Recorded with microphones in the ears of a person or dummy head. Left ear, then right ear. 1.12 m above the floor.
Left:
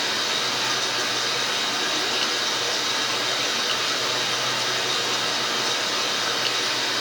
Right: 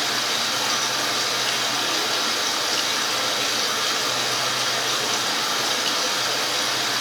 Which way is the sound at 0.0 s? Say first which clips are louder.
Right 1 dB; 5° right (ahead or behind).